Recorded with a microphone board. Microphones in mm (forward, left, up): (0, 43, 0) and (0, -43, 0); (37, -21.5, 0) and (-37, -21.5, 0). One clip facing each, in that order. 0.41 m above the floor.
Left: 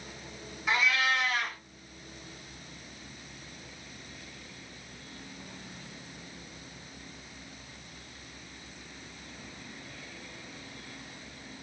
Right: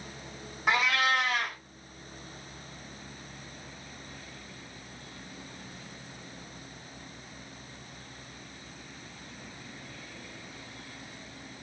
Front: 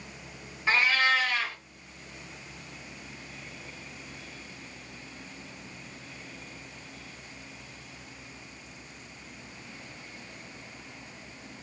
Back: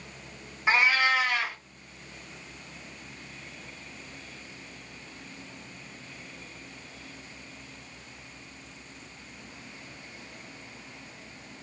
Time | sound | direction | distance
0.7 | a cat meowing | 110° right | 0.7 m